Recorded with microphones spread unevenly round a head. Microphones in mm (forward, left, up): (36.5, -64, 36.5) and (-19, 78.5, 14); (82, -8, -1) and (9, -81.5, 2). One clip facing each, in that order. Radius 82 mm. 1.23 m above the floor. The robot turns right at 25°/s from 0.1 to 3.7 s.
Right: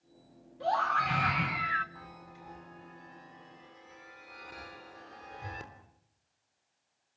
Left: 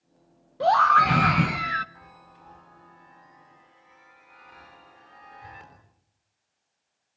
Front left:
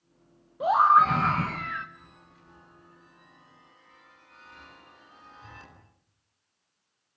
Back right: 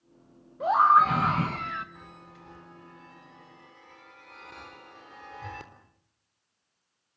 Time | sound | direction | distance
0.6 | a scream | 125° left | 0.9 m
1.9 | a chime | 160° right | 3.5 m